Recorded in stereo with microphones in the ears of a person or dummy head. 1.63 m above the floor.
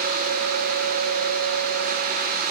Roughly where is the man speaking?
No man speaking in this recording.